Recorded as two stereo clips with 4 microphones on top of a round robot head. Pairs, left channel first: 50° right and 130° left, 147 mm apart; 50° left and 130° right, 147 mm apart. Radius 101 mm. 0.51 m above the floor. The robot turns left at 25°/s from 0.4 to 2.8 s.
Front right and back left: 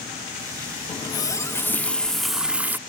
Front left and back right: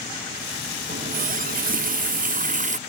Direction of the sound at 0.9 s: 110° right.